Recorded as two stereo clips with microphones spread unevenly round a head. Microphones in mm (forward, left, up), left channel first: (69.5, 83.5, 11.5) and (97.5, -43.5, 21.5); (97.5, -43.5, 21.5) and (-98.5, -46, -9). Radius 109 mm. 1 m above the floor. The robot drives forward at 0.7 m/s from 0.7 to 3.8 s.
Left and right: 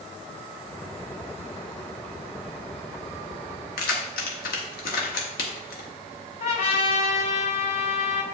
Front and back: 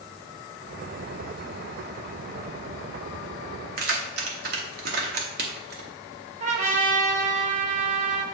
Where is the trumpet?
125° left, 1.2 m.